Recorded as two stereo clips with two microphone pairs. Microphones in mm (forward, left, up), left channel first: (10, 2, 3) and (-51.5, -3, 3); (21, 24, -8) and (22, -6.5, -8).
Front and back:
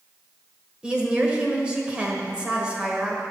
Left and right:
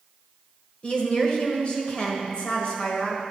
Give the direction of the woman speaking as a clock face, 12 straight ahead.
8 o'clock.